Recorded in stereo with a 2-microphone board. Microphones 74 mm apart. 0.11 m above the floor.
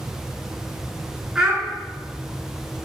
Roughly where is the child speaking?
Centre.